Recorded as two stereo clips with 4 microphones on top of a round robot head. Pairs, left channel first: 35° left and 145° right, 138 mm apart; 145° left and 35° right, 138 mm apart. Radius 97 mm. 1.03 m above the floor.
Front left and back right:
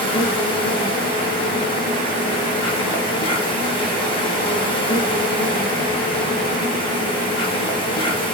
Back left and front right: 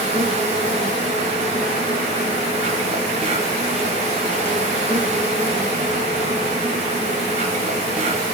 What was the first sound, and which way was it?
An insect, 5° right.